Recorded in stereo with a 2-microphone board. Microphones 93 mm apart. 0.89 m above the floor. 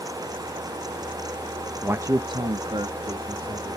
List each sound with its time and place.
1.8 s a man speaking: 15° right (ahead or behind), 0.6 m; by 3.8 s 80° right, 2 m